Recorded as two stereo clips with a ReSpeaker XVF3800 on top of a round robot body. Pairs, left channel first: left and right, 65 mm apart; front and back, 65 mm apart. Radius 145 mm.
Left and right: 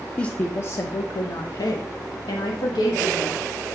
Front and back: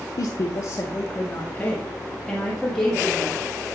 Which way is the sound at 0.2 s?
15° left.